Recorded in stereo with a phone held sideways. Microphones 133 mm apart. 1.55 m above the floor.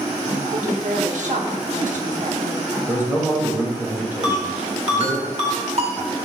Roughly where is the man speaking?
Centre.